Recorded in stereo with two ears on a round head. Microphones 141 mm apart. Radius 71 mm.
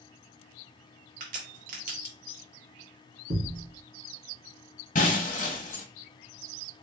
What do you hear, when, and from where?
1.2 s a crack: 60° right (ahead or behind), 1.4 m
3.3 s a thud: 65° right (ahead or behind), 1.5 m
5.0 s breaking glass: 55° left (ahead or behind), 1.0 m